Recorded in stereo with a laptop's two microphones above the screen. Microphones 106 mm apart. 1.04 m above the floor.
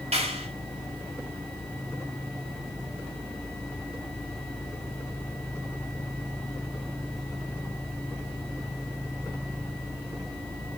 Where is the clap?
85° right, 5.5 m.